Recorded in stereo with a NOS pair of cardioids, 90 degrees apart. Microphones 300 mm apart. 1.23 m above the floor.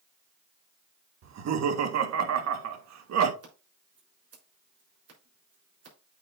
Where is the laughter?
60° right, 1.6 m.